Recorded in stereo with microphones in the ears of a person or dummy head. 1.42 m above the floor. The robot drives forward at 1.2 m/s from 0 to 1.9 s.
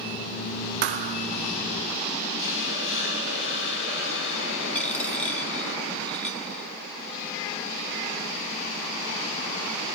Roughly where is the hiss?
Left.